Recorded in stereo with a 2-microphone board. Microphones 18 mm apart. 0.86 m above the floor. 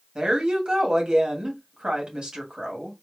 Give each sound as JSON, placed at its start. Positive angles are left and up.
{"t": 0.1, "sound": "a woman speaking", "side_deg": -70, "distance_m": 1.7}